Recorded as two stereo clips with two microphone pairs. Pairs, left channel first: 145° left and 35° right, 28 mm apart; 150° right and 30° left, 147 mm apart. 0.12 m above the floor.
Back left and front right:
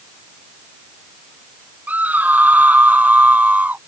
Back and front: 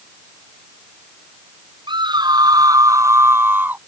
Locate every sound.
1.9 s a scream: 25° right; by 3.8 s 45° right